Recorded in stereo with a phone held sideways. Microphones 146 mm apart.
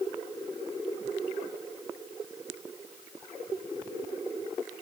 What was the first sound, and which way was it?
Only background noise.